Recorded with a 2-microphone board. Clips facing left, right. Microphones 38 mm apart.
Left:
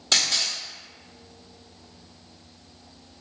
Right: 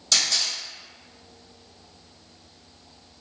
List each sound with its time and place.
0.1 s a camera shutter: 35° left (ahead or behind), 1.4 m